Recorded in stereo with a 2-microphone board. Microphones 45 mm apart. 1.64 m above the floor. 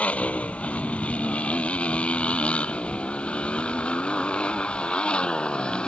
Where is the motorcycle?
30° left (ahead or behind); by 5.9 s 20° left (ahead or behind).